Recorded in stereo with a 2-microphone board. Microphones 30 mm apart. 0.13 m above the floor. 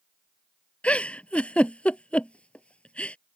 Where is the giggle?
45° left (ahead or behind).